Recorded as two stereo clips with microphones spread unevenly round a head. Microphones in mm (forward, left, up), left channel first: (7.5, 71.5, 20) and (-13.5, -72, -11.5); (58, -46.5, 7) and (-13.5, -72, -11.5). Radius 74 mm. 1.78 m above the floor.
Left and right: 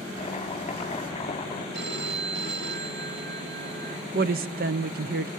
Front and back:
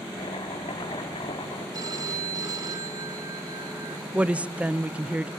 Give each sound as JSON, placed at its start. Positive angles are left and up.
{"t": 0.2, "sound": "chopping", "azimuth_deg": 30, "distance_m": 4.0}
{"t": 1.7, "sound": "a phone ringing", "azimuth_deg": -120, "distance_m": 3.0}
{"t": 4.1, "sound": "a woman speaking", "azimuth_deg": -80, "distance_m": 0.7}